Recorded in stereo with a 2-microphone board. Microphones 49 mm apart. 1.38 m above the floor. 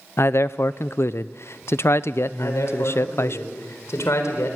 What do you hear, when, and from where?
0.2 s a man speaking: 60° left (ahead or behind), 0.6 m
2.4 s a man speaking: 75° left (ahead or behind), 4.5 m